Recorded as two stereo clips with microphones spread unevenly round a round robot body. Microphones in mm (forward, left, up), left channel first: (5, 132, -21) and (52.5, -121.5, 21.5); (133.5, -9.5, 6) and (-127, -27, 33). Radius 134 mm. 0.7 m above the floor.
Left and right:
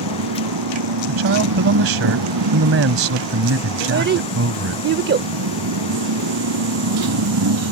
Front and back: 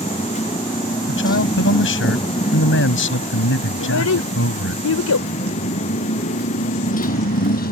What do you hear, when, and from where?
0.0 s a motorcycle: 75° right; by 7.7 s 55° right
1.1 s a man speaking: 40° right
3.8 s a child speaking: 25° right